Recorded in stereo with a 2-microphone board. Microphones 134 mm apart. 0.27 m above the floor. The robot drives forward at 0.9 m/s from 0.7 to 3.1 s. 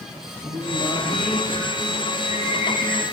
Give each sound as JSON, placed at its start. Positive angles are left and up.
{"t": 0.4, "sound": "singing", "side_deg": 60, "distance_m": 7.5}